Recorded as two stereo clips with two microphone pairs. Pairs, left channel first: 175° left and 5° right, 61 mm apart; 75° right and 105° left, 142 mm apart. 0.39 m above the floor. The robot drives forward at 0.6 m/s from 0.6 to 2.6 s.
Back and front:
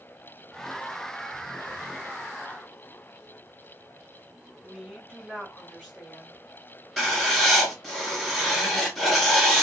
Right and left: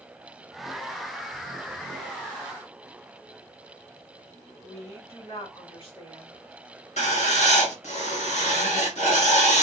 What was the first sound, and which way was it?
A woman speaking, 105° right.